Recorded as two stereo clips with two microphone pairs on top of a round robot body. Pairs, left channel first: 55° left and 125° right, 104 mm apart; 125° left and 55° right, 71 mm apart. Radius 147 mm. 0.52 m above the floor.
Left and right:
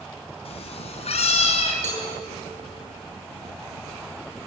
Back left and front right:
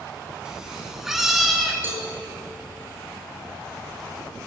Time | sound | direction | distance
0.5 | a cat meowing | 25° left | 2 m
1.8 | a cowbell | 120° right | 5.5 m